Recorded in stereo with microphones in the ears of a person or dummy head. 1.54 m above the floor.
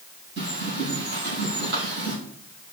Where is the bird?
60° right (ahead or behind), 4.5 m.